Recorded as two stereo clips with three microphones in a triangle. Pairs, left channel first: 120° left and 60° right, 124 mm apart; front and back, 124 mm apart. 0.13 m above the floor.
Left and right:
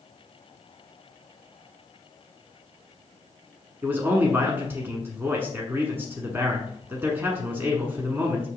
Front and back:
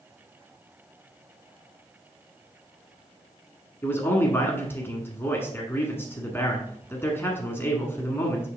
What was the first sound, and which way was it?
A man speaking, 25° right.